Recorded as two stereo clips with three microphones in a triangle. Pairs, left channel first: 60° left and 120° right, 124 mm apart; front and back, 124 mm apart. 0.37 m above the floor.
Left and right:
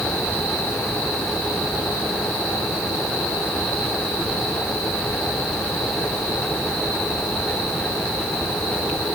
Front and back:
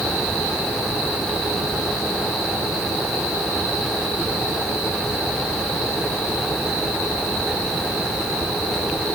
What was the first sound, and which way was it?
Only background noise.